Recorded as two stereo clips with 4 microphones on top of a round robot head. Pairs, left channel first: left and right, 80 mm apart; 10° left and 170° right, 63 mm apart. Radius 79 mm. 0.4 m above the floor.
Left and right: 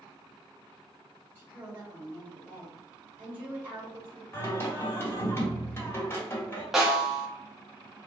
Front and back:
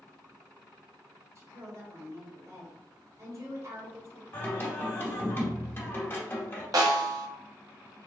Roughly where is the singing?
Ahead left.